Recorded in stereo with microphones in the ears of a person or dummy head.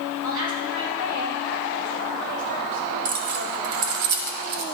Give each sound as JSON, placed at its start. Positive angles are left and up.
{"t": 0.2, "sound": "a woman speaking", "side_deg": -70, "distance_m": 3.5}
{"t": 3.0, "sound": "keys jangling", "side_deg": -60, "distance_m": 0.6}